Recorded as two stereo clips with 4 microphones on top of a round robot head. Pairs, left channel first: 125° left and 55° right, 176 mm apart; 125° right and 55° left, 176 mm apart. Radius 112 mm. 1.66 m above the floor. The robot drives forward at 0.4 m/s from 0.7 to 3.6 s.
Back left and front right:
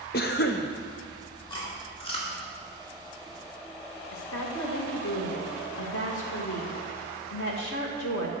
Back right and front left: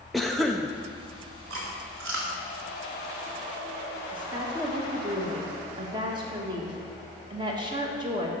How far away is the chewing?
About 2 m.